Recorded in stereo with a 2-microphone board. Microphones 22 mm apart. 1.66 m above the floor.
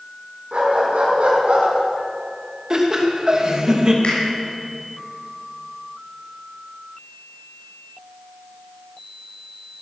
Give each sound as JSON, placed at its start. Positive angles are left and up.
{"t": 0.5, "sound": "a dog barking", "side_deg": -60, "distance_m": 6.5}
{"t": 2.7, "sound": "laughter", "side_deg": -35, "distance_m": 3.0}
{"t": 4.0, "sound": "a finger snap", "side_deg": 60, "distance_m": 7.0}